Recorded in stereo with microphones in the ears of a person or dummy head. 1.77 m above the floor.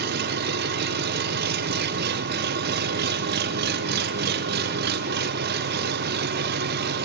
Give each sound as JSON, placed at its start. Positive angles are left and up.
{"t": 0.0, "sound": "an engine running", "side_deg": -60, "distance_m": 1.3}